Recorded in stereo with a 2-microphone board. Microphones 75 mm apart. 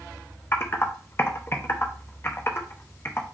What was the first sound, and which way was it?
Typing on a keyboard, 30° left (ahead or behind).